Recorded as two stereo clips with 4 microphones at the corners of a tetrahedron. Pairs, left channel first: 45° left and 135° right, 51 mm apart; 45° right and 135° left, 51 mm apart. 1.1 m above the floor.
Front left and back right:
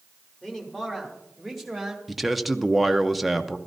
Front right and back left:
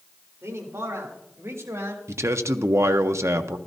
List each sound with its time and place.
0.4 s a man speaking: 125° left, 3 m; by 2.0 s 140° left, 1.9 m
2.1 s a man speaking: 135° left, 0.7 m